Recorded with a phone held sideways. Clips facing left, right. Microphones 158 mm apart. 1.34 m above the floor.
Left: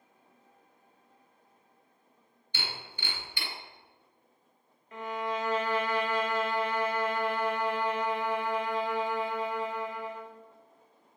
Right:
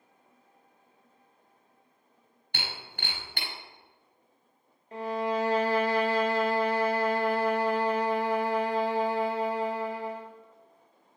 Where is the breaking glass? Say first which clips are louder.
Right 1 dB; 80° right, 4 m.